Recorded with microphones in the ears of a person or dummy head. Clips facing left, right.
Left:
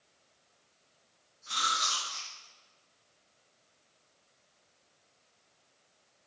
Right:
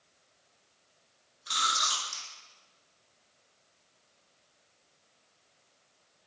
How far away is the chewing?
About 1.5 m.